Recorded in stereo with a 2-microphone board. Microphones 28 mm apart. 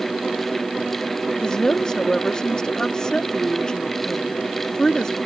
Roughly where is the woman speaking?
Left.